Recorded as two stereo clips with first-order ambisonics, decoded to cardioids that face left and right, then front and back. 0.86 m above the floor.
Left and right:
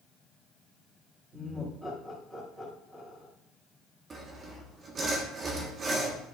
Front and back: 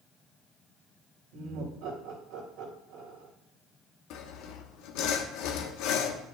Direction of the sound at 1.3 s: 160° right.